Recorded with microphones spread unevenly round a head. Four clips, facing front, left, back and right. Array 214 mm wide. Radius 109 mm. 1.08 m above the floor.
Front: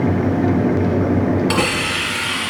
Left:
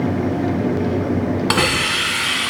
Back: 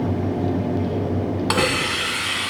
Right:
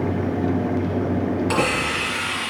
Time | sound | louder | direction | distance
1.5 | a hiss | left 2 dB, front 2 dB | 115° left | 1.6 m